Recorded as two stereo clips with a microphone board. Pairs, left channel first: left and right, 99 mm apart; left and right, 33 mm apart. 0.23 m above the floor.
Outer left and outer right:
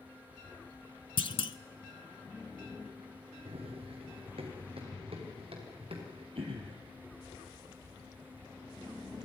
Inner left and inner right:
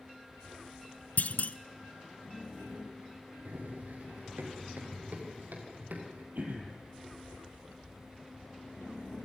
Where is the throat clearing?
75° right (ahead or behind), 4 m.